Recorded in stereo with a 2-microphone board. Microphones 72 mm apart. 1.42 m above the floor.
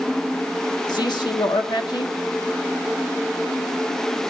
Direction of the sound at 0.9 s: 75° left (ahead or behind).